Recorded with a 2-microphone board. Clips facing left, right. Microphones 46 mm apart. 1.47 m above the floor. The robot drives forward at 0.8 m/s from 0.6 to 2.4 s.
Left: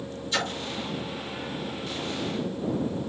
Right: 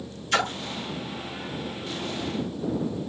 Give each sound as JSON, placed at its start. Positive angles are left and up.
{"t": 0.3, "sound": "a splash", "side_deg": -60, "distance_m": 3.0}